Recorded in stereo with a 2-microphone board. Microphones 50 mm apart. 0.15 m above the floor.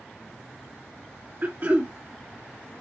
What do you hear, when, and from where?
1.4 s throat clearing: 40° right (ahead or behind), 2.5 m